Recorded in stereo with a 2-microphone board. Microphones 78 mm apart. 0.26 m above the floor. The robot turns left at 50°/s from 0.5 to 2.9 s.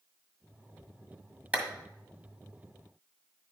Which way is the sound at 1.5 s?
20° right (ahead or behind).